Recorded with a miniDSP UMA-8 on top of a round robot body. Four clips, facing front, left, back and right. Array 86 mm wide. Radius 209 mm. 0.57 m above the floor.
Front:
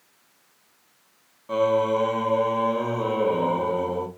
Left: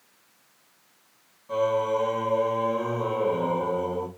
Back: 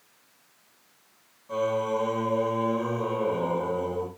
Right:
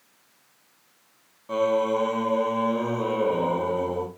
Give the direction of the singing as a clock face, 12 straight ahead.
1 o'clock.